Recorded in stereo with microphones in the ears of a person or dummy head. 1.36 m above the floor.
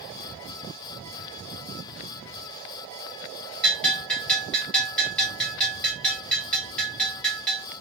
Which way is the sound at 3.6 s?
10° left (ahead or behind).